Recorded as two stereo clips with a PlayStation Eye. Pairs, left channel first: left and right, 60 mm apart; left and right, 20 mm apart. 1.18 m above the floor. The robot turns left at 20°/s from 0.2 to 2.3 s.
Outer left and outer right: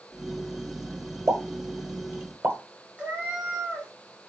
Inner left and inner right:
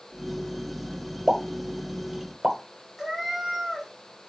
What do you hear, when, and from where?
1.3 s a pop: 60° right (ahead or behind), 1.1 m; by 2.6 s 40° right (ahead or behind), 1.1 m
3.0 s a cat meowing: 20° right (ahead or behind), 1.0 m